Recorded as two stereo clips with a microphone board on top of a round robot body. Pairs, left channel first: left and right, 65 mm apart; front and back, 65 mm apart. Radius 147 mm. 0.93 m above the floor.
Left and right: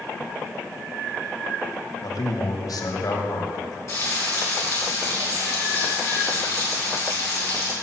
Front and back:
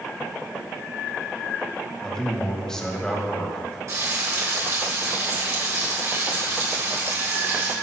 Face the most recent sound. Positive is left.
turn(degrees=140)